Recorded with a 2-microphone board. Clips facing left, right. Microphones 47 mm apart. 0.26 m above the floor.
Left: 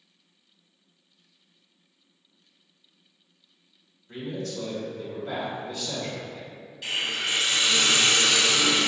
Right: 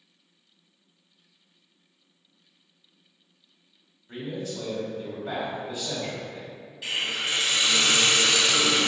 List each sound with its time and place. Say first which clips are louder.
4.1 s a man speaking: even; 15° right (ahead or behind), 1.0 m
6.8 s a hiss: even; 5° right (ahead or behind), 0.7 m